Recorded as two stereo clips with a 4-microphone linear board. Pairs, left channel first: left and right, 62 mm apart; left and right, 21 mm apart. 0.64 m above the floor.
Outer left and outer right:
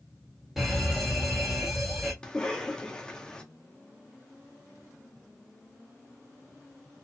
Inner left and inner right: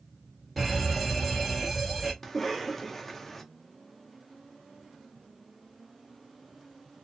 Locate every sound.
0.6 s an alarm: 5° right (ahead or behind), 1.2 m
2.2 s a cough: 15° left (ahead or behind), 0.7 m